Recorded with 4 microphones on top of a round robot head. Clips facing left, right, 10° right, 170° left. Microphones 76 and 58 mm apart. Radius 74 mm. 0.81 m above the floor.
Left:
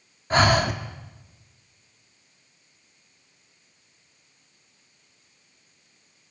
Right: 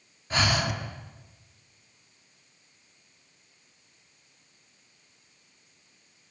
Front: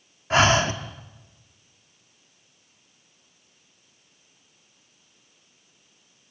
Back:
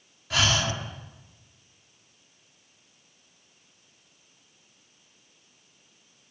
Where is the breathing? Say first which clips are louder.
Left 7 dB, front 7 dB; 40° left, 2 m.